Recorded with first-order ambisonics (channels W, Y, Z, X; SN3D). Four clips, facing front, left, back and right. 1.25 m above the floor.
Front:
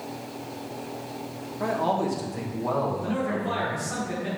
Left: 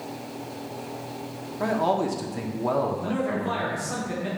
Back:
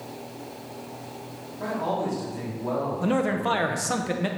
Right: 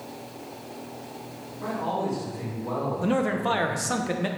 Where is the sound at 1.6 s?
70° left, 1.5 m.